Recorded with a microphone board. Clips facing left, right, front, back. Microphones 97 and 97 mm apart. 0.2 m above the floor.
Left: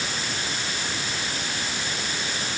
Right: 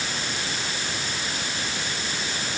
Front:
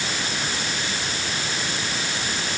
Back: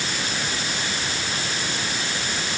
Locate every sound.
Only background noise.